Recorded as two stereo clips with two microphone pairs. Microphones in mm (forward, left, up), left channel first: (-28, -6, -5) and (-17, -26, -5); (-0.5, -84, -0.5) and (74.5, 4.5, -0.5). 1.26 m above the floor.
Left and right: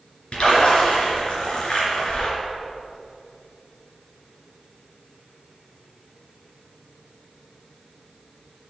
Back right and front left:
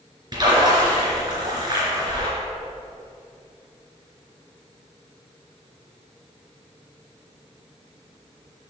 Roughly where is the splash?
Left.